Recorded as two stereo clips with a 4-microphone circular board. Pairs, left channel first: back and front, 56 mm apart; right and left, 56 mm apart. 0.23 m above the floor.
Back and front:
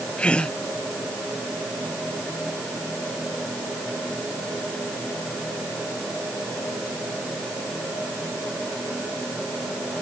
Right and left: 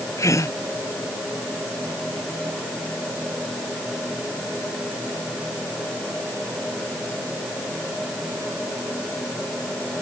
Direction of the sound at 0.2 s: 110° right.